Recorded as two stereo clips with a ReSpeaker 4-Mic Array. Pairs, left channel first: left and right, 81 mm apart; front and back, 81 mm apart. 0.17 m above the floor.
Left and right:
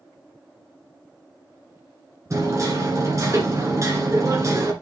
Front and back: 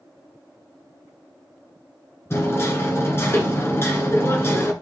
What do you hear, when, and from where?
2.3 s hammering: 50° right, 2.5 m